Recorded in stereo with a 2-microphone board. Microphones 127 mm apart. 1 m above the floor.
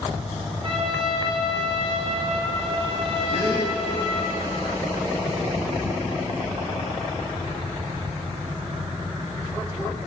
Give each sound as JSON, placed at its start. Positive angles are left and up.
{"t": 0.6, "sound": "a trumpet", "side_deg": -40, "distance_m": 2.5}
{"t": 3.3, "sound": "a gasp", "side_deg": -70, "distance_m": 1.5}